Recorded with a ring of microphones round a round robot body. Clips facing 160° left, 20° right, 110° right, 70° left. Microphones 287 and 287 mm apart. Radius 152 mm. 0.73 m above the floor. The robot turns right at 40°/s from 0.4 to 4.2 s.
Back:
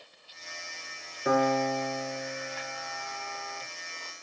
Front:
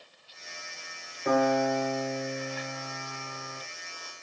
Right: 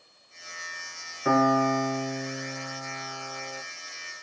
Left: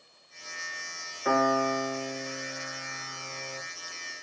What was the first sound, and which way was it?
A piano, 120° right.